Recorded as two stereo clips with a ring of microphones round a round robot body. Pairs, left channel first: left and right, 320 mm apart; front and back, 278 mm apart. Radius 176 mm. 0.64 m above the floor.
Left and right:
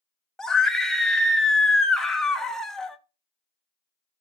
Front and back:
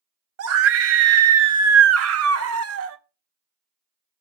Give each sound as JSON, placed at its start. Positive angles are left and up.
{"t": 0.4, "sound": "a scream", "azimuth_deg": 180, "distance_m": 0.8}